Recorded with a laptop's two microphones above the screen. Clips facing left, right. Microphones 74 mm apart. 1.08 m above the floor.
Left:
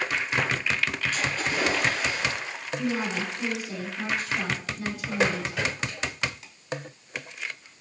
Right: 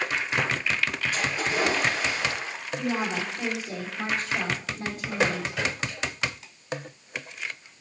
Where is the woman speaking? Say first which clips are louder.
Even; 40° right (ahead or behind), 2.5 m.